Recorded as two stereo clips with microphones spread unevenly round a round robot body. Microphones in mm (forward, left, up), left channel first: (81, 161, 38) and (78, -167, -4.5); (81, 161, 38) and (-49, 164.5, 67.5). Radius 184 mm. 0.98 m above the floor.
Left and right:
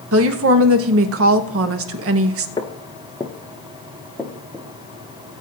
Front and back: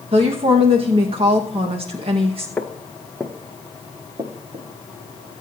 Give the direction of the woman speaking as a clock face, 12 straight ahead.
4 o'clock.